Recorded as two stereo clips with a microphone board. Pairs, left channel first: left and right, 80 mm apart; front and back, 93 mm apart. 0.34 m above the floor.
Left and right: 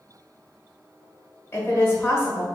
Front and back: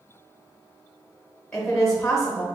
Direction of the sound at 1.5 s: 80° left.